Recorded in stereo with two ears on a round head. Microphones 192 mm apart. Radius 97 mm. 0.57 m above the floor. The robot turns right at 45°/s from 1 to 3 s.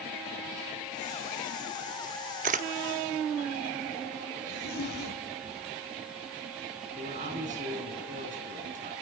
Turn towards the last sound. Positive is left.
turn(degrees=-40)  # may be behind; listen again after turning